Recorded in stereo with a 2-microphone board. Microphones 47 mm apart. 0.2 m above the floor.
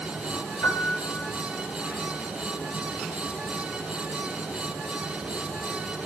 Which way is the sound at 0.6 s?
70° left (ahead or behind).